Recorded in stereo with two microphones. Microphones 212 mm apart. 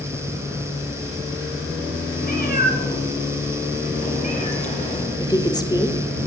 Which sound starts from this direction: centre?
A woman speaking, at 5.2 s.